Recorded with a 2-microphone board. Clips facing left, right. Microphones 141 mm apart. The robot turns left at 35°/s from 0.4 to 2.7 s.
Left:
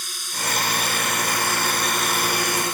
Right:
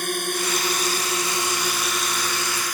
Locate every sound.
0.0 s a drone: 125° right; by 2.7 s 155° left